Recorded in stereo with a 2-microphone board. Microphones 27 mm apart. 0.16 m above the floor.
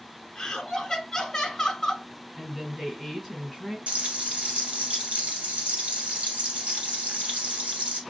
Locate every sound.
0.3 s laughter: 10° left (ahead or behind), 1.1 m
2.4 s a woman speaking: centre (ahead or behind), 1.8 m
3.9 s frying: 55° right (ahead or behind), 1.9 m